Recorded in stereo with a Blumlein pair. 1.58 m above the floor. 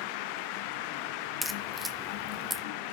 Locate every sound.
1.4 s a crack: 5° right, 0.7 m